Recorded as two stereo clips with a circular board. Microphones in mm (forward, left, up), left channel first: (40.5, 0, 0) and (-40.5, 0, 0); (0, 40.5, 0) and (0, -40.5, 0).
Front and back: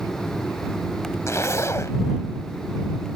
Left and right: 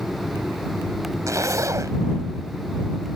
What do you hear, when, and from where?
1.3 s a zipper: 45° right